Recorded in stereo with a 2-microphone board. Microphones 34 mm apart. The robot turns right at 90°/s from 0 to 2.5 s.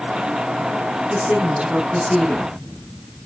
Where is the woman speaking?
85° right, 4.5 m; by 2.6 s 40° left, 4.5 m.